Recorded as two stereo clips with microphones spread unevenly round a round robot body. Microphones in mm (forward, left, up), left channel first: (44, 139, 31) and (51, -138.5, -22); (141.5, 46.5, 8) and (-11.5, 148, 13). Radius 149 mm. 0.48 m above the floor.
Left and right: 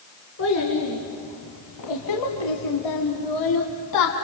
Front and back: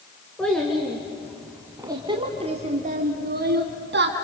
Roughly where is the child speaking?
Ahead left.